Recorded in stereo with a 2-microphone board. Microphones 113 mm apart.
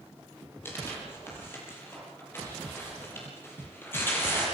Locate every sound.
0.7 s tearing paper: 20° left (ahead or behind), 7.5 m